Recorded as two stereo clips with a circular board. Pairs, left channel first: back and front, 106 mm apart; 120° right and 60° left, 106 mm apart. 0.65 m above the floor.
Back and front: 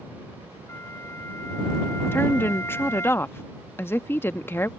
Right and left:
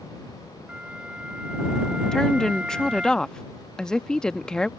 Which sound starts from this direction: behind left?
A flute, at 0.7 s.